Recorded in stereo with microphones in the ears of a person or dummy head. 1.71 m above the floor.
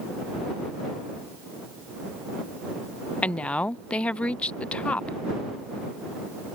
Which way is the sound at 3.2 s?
10° left (ahead or behind).